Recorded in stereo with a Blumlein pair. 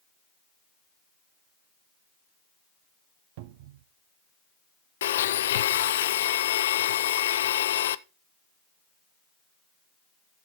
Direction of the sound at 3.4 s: 50° right.